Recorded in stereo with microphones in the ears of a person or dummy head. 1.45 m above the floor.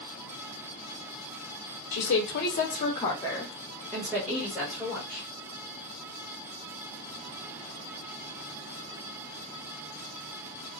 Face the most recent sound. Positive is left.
turn(degrees=-5)  # may be behind; listen again after turning